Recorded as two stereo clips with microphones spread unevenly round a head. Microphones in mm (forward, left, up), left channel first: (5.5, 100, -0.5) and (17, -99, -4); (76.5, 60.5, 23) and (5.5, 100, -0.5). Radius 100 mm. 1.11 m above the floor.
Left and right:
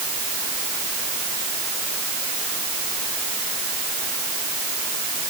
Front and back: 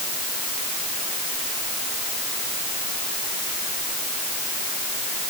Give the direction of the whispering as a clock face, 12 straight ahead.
No whispering in this recording.